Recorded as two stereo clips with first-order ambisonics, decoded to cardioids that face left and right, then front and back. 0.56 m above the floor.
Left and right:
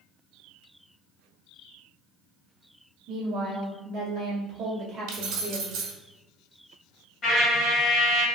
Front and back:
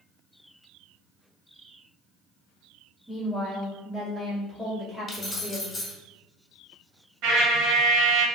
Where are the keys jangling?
70° right, 0.9 m.